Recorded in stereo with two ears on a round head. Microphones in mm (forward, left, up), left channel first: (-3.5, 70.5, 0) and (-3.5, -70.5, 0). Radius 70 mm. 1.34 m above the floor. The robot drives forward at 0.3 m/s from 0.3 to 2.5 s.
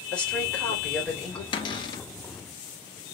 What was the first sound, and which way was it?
A woman speaking, 5° left (ahead or behind).